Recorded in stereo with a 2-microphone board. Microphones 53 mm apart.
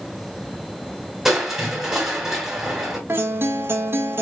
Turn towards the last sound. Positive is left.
turn(degrees=-50)  # may be behind; listen again after turning